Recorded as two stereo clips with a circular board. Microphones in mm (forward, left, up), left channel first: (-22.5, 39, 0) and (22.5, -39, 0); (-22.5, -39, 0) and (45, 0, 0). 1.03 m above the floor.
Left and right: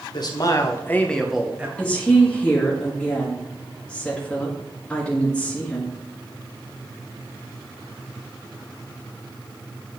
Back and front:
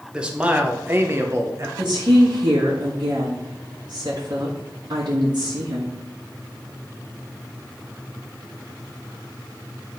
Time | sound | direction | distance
0.1 | a man speaking | 105° left | 1.0 m
1.8 | a woman speaking | 40° left | 1.4 m